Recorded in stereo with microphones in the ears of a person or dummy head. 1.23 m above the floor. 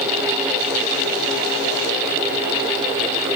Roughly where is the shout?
I don't hear a shout.